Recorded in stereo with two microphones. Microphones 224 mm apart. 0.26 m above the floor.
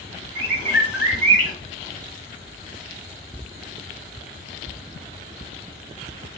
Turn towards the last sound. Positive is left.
turn(degrees=50)  # may be behind; listen again after turning